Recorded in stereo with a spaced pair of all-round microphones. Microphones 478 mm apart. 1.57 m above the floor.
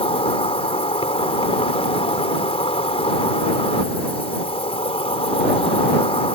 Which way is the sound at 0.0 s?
10° left (ahead or behind).